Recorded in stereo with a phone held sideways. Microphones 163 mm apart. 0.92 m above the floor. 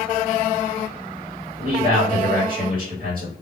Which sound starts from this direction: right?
A man speaking, at 1.6 s.